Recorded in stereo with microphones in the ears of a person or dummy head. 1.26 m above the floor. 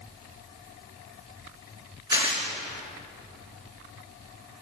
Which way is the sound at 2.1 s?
20° right (ahead or behind).